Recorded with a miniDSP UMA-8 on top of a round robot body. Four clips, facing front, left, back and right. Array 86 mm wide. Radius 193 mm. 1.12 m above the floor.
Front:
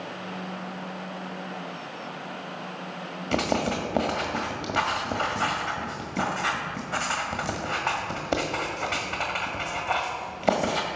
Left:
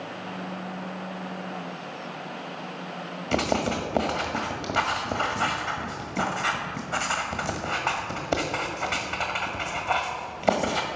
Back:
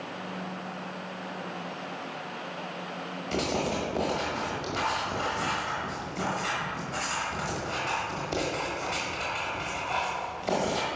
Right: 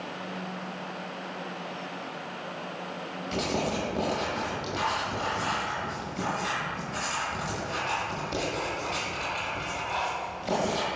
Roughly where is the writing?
Ahead left.